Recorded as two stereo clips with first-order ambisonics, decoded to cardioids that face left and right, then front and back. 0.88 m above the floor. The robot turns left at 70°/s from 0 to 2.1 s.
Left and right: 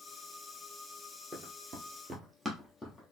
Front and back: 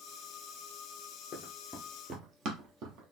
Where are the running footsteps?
20° right, 1.1 m; by 3.1 s 170° left, 1.5 m.